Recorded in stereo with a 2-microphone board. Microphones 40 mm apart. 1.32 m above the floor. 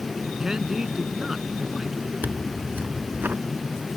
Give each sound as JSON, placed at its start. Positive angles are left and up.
{"t": 0.4, "sound": "a man speaking", "side_deg": -15}
{"t": 2.2, "sound": "tearing paper", "side_deg": -55}